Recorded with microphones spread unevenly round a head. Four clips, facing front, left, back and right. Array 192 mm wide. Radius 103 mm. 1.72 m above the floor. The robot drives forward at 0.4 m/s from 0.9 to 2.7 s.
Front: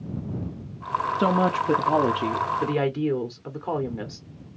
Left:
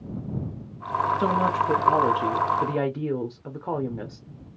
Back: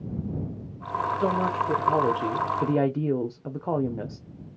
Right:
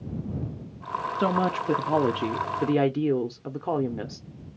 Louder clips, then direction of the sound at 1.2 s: Right 2 dB, front 4 dB; 30° right.